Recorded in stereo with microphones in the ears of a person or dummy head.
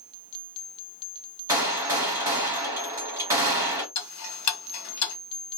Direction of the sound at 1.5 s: 5° right (ahead or behind).